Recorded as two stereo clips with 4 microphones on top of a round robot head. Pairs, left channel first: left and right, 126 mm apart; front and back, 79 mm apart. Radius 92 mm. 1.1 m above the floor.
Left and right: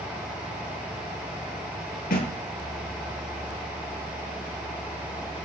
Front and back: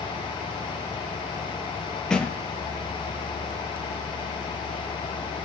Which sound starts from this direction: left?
A thud, at 2.1 s.